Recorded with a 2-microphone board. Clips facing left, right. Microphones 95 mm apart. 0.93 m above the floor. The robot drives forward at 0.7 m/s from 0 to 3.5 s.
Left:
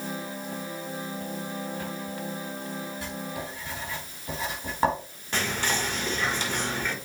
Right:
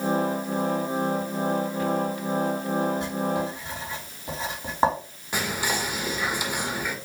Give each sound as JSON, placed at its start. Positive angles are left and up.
{"t": 3.0, "sound": "writing", "side_deg": -25, "distance_m": 3.5}
{"t": 5.3, "sound": "whispering", "side_deg": -10, "distance_m": 1.3}